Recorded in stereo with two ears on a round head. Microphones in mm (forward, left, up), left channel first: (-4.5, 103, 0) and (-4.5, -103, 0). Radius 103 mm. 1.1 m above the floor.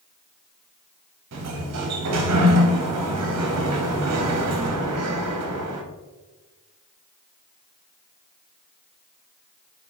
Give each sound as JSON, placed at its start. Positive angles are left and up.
{"t": 1.3, "sound": "a sliding door", "side_deg": -75, "distance_m": 0.8}